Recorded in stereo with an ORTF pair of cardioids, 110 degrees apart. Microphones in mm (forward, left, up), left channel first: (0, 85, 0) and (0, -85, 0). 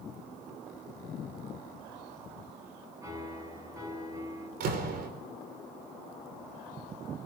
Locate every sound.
3.0 s a piano: 20° right, 8.5 m
4.6 s a door slam: 70° right, 4.5 m